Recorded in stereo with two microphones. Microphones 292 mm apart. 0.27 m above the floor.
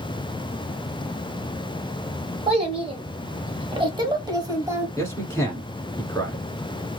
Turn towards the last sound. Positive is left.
turn(degrees=10)  # may be behind; listen again after turning